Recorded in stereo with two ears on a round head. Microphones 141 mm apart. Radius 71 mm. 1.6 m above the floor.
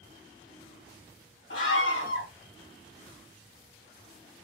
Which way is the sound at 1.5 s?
80° left.